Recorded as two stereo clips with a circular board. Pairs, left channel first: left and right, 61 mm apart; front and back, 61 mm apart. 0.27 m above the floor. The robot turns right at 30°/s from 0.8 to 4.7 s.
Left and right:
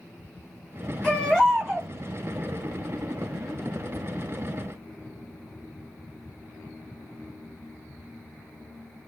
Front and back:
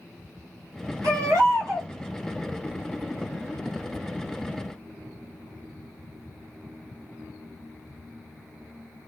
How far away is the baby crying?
About 1.3 m.